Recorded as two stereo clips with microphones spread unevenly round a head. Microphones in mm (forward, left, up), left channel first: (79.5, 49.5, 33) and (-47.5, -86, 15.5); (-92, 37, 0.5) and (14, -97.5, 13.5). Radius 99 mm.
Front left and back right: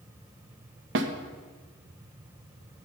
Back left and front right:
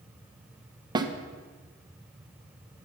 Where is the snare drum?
120° right, 1.1 m.